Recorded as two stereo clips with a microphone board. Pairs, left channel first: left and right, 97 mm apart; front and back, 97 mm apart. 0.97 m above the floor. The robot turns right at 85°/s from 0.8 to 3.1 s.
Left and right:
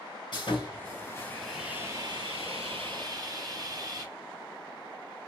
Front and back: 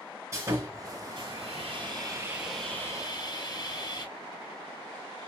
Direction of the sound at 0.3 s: 120° left.